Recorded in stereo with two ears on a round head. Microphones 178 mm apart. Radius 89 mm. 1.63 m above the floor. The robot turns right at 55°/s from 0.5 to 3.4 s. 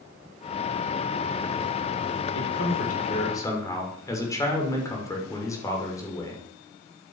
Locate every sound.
2.3 s a man speaking: 105° left, 6.5 m; by 6.5 s 165° left, 6.5 m